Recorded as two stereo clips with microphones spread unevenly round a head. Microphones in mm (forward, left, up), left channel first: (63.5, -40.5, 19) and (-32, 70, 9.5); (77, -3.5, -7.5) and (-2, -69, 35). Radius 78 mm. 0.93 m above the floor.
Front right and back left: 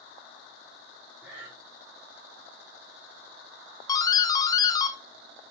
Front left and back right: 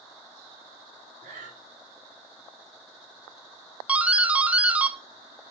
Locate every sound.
1.2 s breathing: 155° right, 3 m
3.9 s a doorbell: 20° right, 0.7 m